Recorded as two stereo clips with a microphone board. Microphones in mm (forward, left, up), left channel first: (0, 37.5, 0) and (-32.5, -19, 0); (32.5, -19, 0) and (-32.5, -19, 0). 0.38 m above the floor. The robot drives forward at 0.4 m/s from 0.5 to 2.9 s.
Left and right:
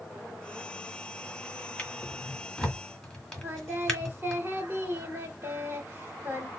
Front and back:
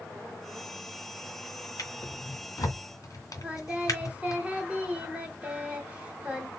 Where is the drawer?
15° right, 1.8 m; by 4.4 s 20° right, 1.4 m.